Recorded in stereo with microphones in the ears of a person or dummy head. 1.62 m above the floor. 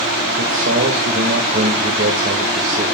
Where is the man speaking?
55° right (ahead or behind), 2 m.